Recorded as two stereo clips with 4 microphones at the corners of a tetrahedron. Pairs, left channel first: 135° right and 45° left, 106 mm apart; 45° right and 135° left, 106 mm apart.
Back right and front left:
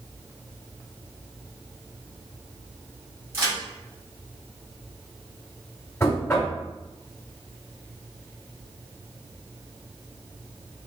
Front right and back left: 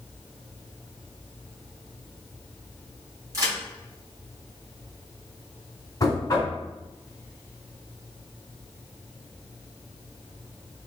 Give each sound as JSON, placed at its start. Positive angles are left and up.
{"t": 3.3, "sound": "a crack", "azimuth_deg": 95, "distance_m": 1.9}
{"t": 6.0, "sound": "knocking", "azimuth_deg": -75, "distance_m": 1.3}